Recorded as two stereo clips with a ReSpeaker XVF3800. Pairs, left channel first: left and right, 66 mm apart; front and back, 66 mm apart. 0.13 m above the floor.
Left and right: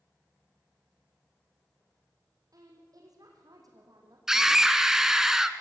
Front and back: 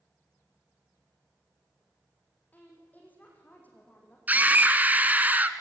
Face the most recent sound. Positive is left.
turn(degrees=-165)